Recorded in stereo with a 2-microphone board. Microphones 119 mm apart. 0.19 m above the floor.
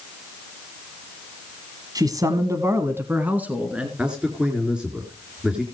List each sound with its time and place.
1.9 s a man speaking: 35° right (ahead or behind), 1.4 m; by 3.9 s 10° right (ahead or behind), 2.5 m
4.0 s a man speaking: 10° right (ahead or behind), 3 m